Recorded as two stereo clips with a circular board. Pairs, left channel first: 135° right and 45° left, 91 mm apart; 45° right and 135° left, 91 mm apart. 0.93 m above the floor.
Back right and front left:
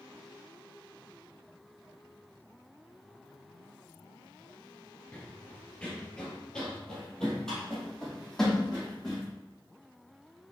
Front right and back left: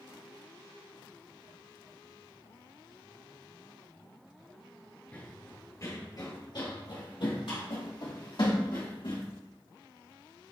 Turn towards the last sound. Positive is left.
turn(degrees=-45)